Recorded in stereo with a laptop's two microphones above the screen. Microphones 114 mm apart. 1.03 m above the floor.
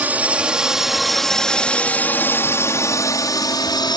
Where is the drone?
15° right (ahead or behind); by 4.0 s 40° left (ahead or behind).